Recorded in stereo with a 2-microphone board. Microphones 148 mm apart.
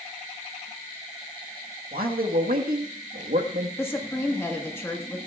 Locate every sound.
1.9 s a man speaking: 85° right, 1.4 m
3.8 s a woman speaking: 15° left (ahead or behind), 1.4 m